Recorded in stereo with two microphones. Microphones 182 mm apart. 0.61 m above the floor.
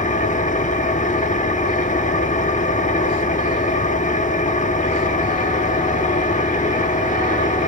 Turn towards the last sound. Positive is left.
turn(degrees=45)  # may be behind; listen again after turning